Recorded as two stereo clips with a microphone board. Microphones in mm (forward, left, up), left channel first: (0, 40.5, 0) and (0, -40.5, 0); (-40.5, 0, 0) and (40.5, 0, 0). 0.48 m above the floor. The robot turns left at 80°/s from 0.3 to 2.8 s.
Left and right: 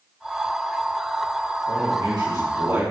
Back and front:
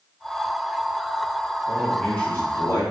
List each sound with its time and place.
1.7 s a man speaking: 65° right, 3 m; by 2.8 s 155° right, 3 m